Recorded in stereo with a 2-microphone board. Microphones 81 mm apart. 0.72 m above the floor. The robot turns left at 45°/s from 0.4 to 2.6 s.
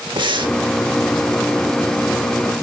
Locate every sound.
0.2 s breathing: 70° right (ahead or behind), 1.1 m; by 0.6 s 60° right (ahead or behind), 1.1 m